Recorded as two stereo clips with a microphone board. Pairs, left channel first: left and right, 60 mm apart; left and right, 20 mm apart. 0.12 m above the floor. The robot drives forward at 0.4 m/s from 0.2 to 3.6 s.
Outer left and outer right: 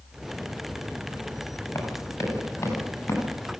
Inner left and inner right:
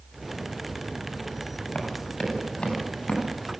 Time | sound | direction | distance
1.8 | running footsteps | 45° left (ahead or behind) | 9.5 m